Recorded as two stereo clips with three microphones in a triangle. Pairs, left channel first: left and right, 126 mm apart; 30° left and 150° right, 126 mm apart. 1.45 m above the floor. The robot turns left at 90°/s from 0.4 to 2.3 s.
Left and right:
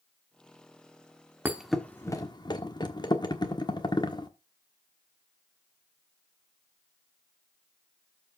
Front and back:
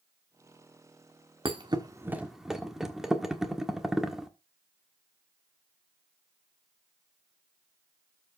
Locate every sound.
1.4 s a thud: 160° right, 1.2 m; by 4.3 s 125° left, 1.2 m